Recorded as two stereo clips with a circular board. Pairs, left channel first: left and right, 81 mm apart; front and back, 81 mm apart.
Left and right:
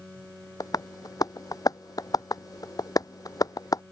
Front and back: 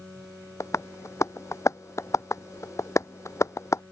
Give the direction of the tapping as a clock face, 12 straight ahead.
10 o'clock.